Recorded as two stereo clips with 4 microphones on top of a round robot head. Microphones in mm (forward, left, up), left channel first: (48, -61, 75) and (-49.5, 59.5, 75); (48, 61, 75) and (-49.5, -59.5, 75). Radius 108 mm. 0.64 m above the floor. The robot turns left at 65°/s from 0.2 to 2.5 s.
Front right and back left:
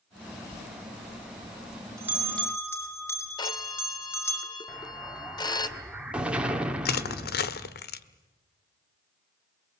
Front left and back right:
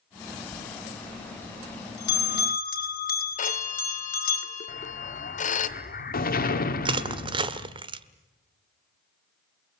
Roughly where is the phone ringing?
Ahead.